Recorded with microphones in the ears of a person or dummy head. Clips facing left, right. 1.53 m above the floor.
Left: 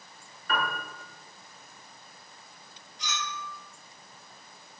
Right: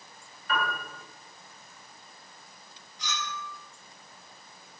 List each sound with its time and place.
0.5 s a piano: 45° left (ahead or behind), 1.7 m
3.0 s a clink: 25° left (ahead or behind), 1.4 m